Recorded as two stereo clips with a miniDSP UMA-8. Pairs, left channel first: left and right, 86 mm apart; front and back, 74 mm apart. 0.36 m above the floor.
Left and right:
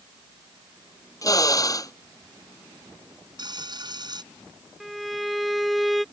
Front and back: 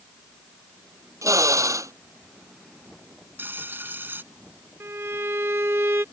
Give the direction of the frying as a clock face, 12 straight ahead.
4 o'clock.